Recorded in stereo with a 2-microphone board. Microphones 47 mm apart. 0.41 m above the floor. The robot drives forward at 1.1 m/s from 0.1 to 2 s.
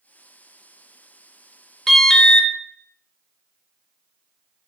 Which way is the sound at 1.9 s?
5° left (ahead or behind).